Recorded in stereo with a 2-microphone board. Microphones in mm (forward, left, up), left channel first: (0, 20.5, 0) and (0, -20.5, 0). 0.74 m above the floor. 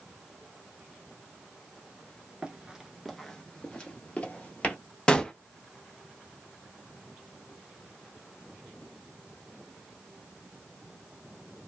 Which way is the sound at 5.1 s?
20° left (ahead or behind).